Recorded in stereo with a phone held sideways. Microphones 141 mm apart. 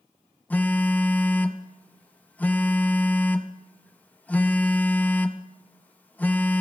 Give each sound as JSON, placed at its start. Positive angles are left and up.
{"t": 0.5, "sound": "a phone buzzing", "side_deg": 10, "distance_m": 0.6}